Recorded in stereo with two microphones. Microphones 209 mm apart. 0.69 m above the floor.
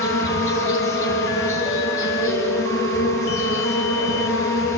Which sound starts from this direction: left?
An insect, at 0.0 s.